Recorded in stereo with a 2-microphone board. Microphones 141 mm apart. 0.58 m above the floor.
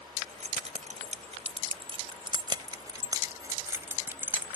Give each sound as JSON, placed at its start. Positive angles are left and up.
{"t": 0.2, "sound": "keys jangling", "side_deg": -65}